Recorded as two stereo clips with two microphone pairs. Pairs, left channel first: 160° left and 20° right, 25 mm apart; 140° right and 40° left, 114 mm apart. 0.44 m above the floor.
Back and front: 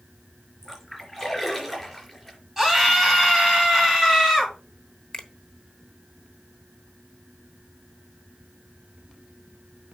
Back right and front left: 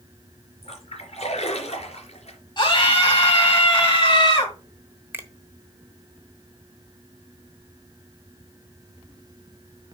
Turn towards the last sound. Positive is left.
turn(degrees=110)